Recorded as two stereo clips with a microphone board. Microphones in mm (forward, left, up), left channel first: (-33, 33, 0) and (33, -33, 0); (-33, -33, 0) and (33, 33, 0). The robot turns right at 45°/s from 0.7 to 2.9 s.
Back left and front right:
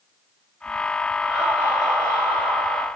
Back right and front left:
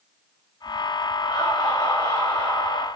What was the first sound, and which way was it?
Laughter, 105° right.